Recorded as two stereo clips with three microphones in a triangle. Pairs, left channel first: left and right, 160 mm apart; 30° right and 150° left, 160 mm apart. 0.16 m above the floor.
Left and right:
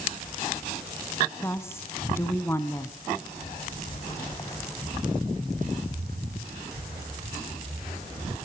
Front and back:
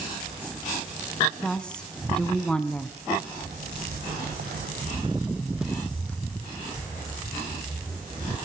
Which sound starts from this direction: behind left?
Footsteps, at 3.4 s.